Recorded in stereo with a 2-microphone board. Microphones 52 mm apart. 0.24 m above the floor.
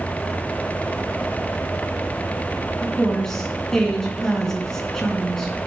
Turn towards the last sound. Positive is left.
turn(degrees=10)  # may be behind; listen again after turning